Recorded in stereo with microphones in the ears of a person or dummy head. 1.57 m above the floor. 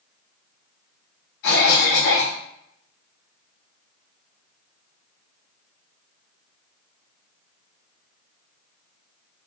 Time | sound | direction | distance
1.4 | a cough | 65° left (ahead or behind) | 0.9 m